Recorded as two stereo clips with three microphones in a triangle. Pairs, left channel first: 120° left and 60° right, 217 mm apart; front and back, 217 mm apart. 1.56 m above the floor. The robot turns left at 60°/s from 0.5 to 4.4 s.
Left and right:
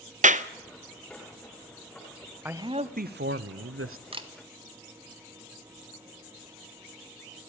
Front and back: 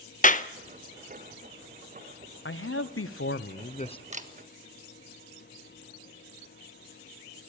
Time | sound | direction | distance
0.2 | a clap | 30° right | 0.8 m
2.5 | a man speaking | 25° left | 0.8 m
4.1 | a camera shutter | 120° right | 1.3 m